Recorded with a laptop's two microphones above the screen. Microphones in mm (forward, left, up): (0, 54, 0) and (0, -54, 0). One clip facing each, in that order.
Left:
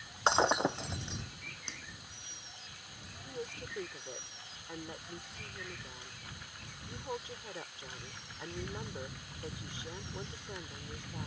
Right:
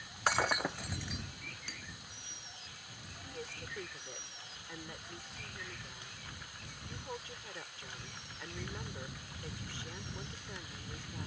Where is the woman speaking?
20° left (ahead or behind).